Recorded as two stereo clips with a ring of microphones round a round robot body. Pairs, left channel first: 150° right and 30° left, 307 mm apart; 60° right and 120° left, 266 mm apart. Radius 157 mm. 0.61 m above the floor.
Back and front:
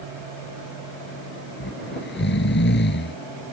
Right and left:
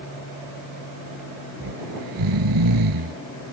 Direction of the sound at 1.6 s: 150° left.